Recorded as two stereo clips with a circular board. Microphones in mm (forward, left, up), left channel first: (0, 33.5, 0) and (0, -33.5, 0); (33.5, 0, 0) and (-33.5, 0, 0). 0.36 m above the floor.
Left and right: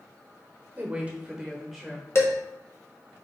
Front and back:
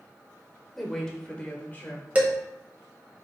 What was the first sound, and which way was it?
A woman speaking, 85° right.